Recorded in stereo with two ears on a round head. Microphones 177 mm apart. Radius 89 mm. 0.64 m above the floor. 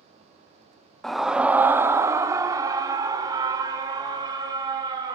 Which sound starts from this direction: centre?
A scream, at 1.0 s.